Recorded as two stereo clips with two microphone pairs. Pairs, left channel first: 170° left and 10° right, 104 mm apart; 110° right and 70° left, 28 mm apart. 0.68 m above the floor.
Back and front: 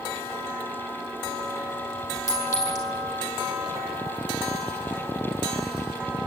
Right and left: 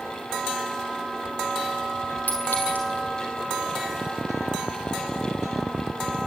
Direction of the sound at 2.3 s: 130° right.